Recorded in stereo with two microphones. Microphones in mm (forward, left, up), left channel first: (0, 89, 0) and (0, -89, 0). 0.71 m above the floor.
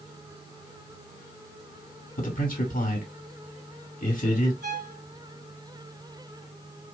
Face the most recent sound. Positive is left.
turn(degrees=-70)  # may be behind; listen again after turning